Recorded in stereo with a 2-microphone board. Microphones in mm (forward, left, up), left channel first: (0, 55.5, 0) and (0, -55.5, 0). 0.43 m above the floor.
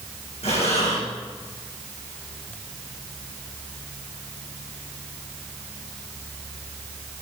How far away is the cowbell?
No cowbell in this recording.